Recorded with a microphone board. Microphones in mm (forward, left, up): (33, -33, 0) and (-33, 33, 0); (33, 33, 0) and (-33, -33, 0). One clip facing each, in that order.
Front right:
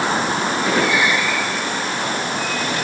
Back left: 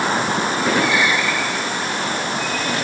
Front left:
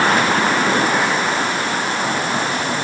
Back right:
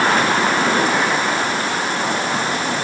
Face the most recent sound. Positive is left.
No sound to turn to.